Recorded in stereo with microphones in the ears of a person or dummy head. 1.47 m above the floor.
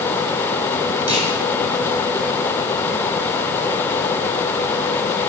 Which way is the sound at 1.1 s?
30° right (ahead or behind).